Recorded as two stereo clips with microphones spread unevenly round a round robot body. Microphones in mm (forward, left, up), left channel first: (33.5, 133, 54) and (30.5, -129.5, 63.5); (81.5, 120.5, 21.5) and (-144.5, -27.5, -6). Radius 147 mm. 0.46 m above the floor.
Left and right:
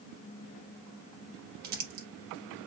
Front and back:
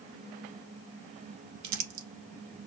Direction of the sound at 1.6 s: 150° right.